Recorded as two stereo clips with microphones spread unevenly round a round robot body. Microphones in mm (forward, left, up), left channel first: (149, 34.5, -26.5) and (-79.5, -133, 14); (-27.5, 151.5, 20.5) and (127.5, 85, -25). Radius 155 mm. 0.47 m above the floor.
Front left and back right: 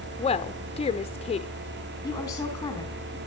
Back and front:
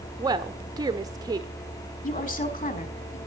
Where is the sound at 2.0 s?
115° left, 4 m.